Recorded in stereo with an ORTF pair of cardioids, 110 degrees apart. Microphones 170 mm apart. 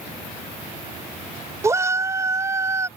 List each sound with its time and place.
1.6 s a shout: 15° right